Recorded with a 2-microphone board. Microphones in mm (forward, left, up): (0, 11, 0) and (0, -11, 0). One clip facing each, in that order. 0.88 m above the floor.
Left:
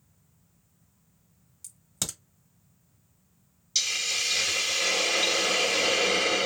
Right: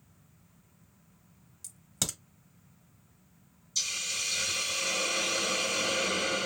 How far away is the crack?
About 0.9 m.